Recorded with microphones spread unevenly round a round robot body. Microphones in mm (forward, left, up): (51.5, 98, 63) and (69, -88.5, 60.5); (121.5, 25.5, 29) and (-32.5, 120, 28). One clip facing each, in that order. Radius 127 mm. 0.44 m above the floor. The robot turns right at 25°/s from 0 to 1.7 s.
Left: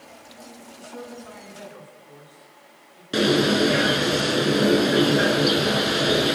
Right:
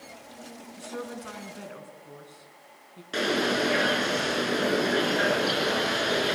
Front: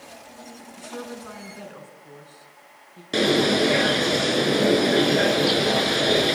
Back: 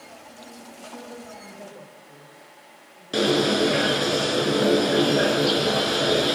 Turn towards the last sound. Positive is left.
turn(degrees=50)